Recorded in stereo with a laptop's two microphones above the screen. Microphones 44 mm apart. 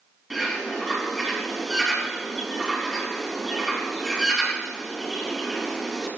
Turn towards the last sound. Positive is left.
turn(degrees=0)  # may be behind; listen again after turning